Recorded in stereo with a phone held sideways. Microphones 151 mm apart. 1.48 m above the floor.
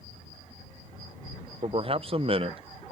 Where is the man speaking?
40° right (ahead or behind).